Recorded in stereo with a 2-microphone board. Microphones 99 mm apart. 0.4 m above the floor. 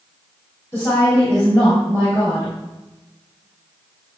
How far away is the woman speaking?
About 2 m.